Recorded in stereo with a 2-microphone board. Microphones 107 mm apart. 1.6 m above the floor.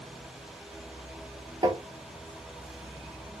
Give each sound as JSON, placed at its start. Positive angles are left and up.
{"t": 1.6, "sound": "tapping", "side_deg": -45, "distance_m": 1.4}